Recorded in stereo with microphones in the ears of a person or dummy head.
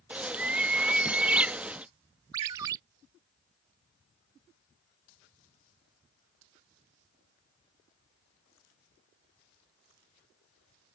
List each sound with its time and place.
0.1 s a bird: 5° right (ahead or behind)
2.3 s a ringtone: 15° right (ahead or behind)